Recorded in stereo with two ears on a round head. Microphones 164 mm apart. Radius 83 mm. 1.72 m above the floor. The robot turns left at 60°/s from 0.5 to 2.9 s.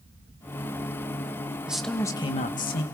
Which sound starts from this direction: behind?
A man speaking, at 1.7 s.